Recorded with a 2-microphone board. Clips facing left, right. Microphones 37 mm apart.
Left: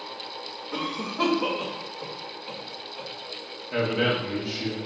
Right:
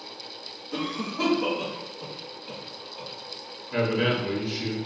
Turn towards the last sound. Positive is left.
turn(degrees=50)  # may be behind; listen again after turning